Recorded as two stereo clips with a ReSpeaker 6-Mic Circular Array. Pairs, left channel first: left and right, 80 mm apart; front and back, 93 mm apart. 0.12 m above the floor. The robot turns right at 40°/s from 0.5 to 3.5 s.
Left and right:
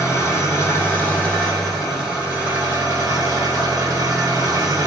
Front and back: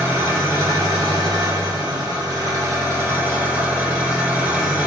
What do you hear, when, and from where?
0.0 s an engine running: 125° left, 1.8 m; by 4.9 s 115° right, 1.8 m